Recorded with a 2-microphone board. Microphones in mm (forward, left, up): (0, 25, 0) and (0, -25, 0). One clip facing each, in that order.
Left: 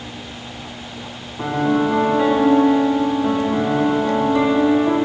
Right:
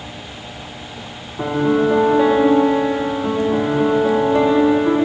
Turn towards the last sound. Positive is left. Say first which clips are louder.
# right 2 dB
turn(degrees=-40)  # may be behind; listen again after turning